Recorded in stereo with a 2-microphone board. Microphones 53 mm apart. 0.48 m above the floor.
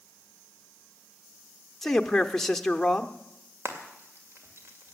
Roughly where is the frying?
Right.